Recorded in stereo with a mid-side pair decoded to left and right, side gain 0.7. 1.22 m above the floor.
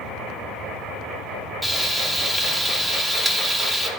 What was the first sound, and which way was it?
Frying, 10° right.